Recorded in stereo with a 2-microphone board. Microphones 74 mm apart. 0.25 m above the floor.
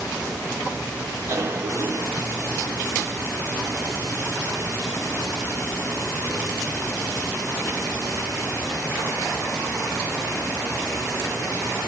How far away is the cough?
About 2.5 m.